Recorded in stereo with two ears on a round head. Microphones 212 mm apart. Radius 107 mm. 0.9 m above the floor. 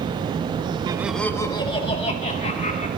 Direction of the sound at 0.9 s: 20° right (ahead or behind).